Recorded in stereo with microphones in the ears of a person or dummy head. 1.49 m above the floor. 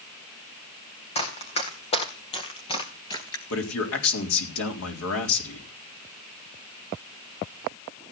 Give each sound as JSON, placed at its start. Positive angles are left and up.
{"t": 1.1, "sound": "running footsteps", "side_deg": 35, "distance_m": 4.0}
{"t": 3.5, "sound": "a man speaking", "side_deg": 75, "distance_m": 4.0}